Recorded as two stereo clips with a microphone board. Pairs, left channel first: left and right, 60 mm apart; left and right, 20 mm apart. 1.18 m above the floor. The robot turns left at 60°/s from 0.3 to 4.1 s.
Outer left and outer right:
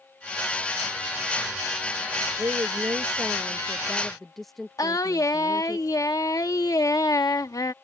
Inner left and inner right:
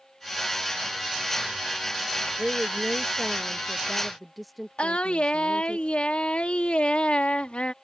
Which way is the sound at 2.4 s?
80° right.